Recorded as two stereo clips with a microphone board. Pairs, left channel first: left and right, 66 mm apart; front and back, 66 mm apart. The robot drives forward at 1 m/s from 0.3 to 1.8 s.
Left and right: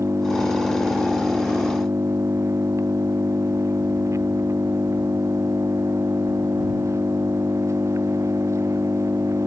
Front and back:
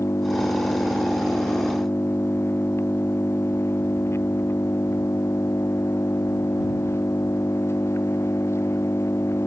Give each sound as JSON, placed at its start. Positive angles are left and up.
{"t": 0.0, "sound": "an engine running", "azimuth_deg": -45}